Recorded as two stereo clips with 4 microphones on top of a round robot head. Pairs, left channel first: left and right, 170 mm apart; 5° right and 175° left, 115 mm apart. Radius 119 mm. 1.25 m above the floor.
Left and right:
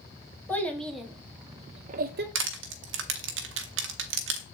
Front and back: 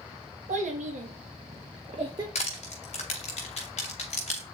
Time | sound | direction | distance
0.5 | a child speaking | 170° left | 1.5 m
2.4 | crushing | 60° right | 0.6 m